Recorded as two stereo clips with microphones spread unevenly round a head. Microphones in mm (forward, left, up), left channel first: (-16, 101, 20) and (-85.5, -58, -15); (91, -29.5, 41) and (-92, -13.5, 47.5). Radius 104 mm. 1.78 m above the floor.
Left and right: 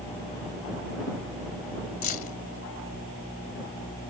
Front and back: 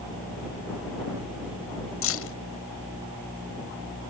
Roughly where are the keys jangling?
Ahead.